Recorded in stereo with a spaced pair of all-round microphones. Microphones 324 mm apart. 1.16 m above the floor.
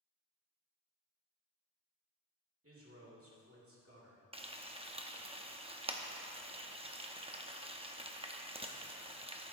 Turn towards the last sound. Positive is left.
turn(degrees=-15)  # may be behind; listen again after turning